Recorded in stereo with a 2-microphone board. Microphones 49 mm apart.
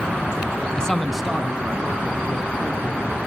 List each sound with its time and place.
0.8 s a man speaking: 20° left (ahead or behind), 1.2 m; by 3.2 s 40° right (ahead or behind), 3.5 m